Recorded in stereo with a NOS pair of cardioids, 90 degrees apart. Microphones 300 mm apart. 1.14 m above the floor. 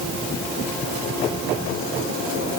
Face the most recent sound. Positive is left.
No sound to turn to.